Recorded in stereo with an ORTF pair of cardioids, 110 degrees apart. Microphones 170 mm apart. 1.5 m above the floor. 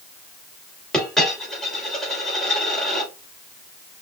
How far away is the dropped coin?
About 2.5 m.